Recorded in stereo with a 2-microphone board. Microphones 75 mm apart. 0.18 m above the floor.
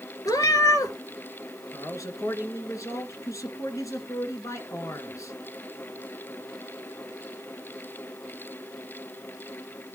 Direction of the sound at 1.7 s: 45° left (ahead or behind).